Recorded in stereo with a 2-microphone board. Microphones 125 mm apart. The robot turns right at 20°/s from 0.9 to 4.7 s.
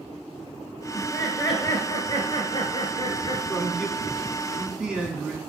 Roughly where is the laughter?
Ahead left.